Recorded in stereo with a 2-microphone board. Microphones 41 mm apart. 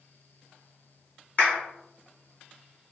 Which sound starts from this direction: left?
A clap, at 1.4 s.